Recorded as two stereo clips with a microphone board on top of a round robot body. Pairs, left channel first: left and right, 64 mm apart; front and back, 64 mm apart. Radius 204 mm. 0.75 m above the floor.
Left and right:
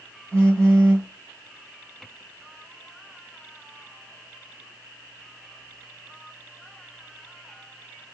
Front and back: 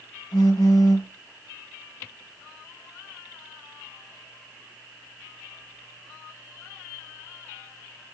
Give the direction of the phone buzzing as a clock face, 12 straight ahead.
11 o'clock.